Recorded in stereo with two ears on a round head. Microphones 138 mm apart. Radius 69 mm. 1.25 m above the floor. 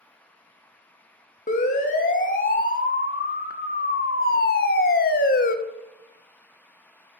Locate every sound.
1.5 s a siren: 50° left (ahead or behind), 3 m; by 5.5 s 55° left (ahead or behind), 1.7 m